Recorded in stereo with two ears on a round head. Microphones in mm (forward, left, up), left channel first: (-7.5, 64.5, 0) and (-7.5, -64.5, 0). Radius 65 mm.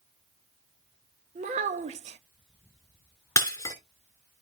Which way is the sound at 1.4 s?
50° right (ahead or behind).